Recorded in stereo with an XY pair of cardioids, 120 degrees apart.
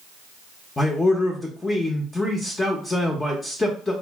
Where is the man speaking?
15° left, 0.6 m.